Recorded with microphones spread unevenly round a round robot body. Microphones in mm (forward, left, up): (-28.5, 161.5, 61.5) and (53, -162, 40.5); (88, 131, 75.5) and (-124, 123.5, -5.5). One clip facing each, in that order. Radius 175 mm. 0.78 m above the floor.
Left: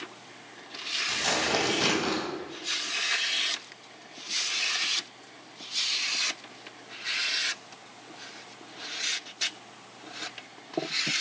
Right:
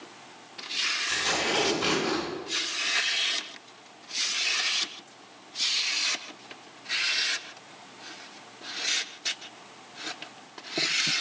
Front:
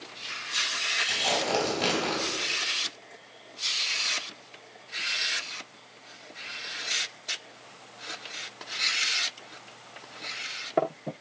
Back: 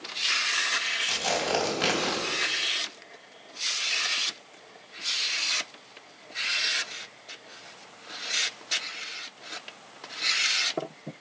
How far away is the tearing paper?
About 3.5 m.